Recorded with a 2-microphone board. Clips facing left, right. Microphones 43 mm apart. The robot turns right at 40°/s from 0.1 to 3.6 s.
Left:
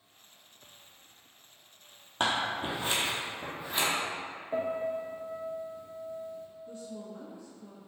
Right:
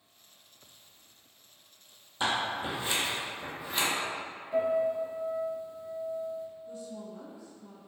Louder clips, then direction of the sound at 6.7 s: Right 1 dB; 35° left (ahead or behind).